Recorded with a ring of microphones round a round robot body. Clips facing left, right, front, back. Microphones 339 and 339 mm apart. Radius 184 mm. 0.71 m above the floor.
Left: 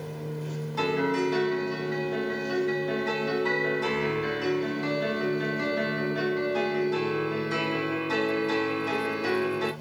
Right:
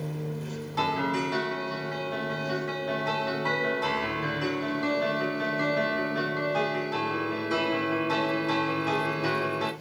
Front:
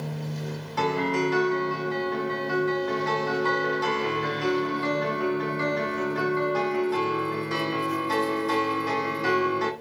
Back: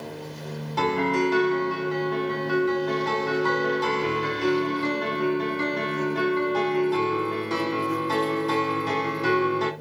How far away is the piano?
About 2 m.